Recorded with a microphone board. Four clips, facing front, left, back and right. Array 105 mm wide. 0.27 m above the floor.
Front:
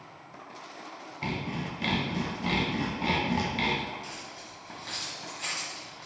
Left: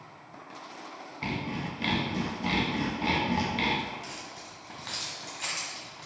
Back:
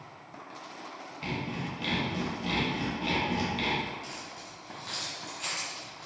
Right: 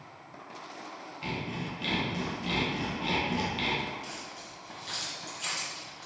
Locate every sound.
1.2 s sawing: 45° left, 0.6 m
4.0 s keys jangling: 80° left, 1.5 m